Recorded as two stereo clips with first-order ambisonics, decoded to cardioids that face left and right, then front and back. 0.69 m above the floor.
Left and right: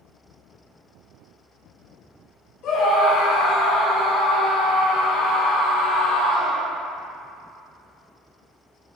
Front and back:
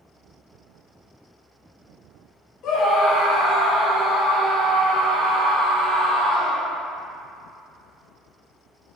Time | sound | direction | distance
2.6 | a scream | 45° left | 1.6 m